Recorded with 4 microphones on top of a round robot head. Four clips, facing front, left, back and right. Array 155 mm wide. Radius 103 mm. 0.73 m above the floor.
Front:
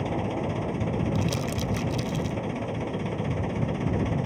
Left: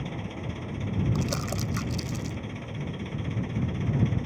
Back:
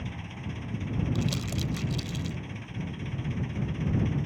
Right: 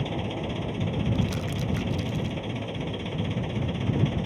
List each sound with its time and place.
0.0 s an engine running: 25° right
1.1 s crumpling: 65° left